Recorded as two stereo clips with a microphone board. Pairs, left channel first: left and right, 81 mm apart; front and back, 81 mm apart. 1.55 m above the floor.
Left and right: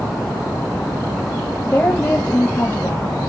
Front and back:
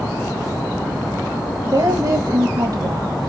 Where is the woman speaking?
160° left, 1.5 m.